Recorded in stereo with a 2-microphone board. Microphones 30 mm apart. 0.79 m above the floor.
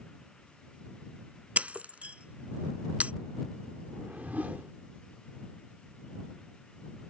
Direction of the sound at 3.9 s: 65° right (ahead or behind).